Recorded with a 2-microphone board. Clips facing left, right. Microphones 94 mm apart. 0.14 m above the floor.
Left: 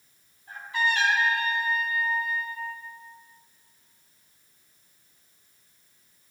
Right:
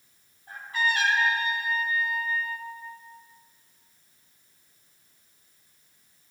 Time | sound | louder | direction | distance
0.5 | a trumpet | left 1 dB | 45° right (ahead or behind) | 4.5 m